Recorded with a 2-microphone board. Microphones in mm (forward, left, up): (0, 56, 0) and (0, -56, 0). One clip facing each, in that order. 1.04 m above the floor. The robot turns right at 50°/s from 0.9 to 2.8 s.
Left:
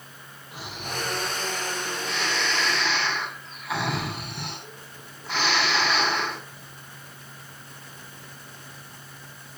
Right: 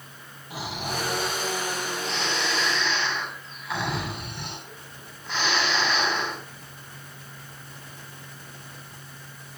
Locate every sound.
0.5 s snoring: 90° right, 8 m; by 6.4 s 5° left, 8 m